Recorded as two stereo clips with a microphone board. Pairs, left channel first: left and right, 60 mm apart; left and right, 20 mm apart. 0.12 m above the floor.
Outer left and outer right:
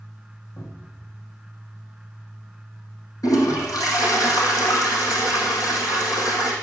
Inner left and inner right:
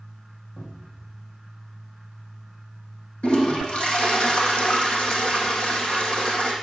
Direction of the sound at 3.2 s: 75° left (ahead or behind).